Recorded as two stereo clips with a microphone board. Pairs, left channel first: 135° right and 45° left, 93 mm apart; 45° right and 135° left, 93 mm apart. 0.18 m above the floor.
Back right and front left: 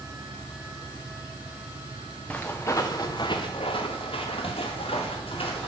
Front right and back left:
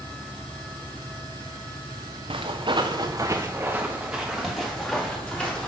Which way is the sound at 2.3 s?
150° left.